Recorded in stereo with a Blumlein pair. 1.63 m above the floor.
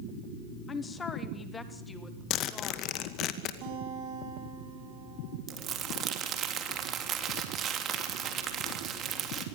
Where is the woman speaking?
20° left, 2.0 m; by 3.2 s 5° left, 3.5 m.